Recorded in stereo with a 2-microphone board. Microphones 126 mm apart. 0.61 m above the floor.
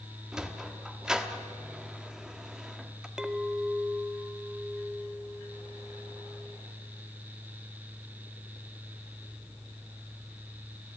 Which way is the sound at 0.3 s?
5° right (ahead or behind).